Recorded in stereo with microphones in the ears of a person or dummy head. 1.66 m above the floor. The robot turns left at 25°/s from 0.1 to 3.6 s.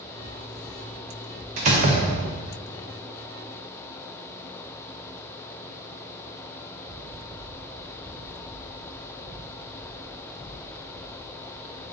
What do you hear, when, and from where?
1.6 s a door slam: 40° right (ahead or behind), 0.6 m; by 2.5 s 25° right (ahead or behind), 0.6 m